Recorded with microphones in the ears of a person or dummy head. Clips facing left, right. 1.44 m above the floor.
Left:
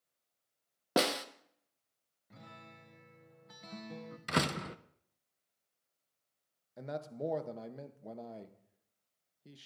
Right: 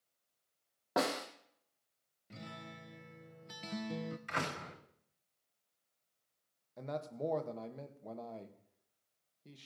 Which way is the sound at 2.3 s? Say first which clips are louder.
Right 5 dB; 30° right (ahead or behind).